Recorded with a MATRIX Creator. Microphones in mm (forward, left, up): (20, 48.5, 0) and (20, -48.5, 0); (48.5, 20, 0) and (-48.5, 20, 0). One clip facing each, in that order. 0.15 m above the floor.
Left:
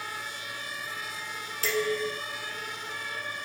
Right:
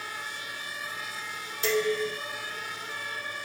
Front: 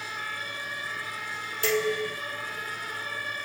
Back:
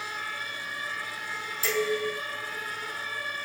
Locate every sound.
1.6 s dishes clattering: 20° right, 3.5 m